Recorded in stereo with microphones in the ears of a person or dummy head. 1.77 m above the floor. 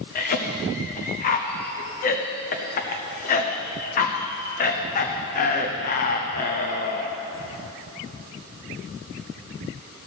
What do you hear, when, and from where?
0.1 s a cough: 35° left (ahead or behind), 0.7 m